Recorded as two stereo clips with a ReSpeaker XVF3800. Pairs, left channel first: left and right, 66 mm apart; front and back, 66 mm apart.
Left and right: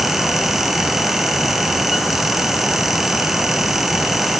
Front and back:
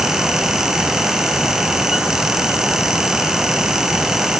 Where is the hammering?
No hammering in this recording.